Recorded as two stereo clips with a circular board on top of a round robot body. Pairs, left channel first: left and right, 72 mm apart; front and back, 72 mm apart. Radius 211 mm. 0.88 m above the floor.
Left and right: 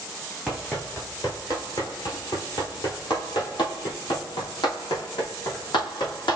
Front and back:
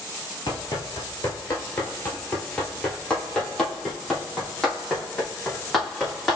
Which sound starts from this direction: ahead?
Running footsteps, at 0.5 s.